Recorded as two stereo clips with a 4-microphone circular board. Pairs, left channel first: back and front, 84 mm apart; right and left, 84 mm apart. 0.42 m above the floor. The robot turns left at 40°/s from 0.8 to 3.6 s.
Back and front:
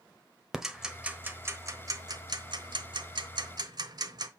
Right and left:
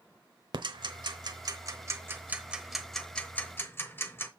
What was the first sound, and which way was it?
Ticking, 85° left.